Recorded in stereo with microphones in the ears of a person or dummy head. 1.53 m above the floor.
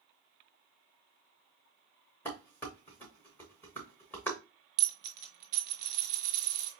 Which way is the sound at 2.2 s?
10° left (ahead or behind).